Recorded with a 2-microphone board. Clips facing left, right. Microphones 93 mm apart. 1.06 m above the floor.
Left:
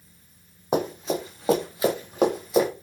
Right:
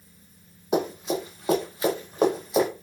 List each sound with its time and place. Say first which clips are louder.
0.7 s running footsteps: even; 40° left (ahead or behind), 1.9 m; by 2.7 s 5° right (ahead or behind), 1.6 m